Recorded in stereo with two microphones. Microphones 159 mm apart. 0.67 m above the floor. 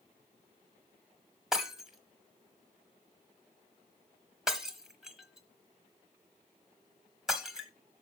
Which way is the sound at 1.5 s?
5° right (ahead or behind).